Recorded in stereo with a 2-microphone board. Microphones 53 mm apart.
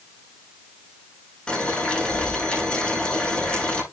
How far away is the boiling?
About 7 m.